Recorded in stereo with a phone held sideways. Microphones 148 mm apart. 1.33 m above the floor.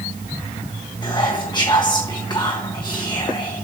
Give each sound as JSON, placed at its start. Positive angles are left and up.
{"t": 1.0, "sound": "whispering", "side_deg": 30, "distance_m": 1.2}